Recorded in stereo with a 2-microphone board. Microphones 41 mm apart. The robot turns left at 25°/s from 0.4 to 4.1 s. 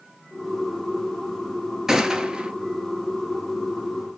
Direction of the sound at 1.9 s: 15° right (ahead or behind).